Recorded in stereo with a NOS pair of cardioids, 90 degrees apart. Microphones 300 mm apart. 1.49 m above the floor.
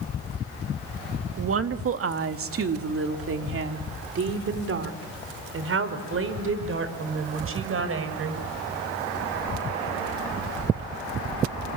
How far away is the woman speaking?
About 2 m.